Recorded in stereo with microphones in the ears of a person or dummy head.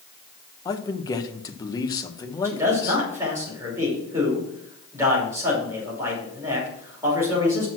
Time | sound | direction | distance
0.7 | a man speaking | 25° left (ahead or behind) | 1.1 m
2.4 | a man speaking | 15° right (ahead or behind) | 5.5 m